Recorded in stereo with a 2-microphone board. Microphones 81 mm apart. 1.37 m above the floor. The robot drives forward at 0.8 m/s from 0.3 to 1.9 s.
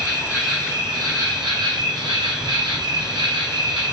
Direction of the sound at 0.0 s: 40° right (ahead or behind).